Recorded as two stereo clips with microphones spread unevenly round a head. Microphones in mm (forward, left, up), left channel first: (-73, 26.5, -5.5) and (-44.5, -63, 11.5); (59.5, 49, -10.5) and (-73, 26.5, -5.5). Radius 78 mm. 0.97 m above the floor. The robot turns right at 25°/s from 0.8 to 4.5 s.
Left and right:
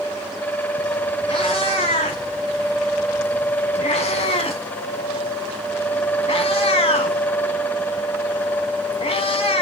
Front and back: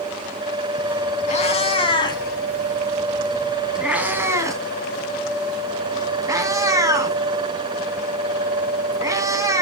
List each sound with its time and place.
1.3 s a cat meowing: 45° left, 2.5 m; by 9.6 s 125° left, 2.5 m